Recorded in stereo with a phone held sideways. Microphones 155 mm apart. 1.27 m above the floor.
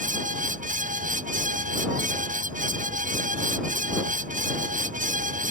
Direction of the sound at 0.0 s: 55° right (ahead or behind).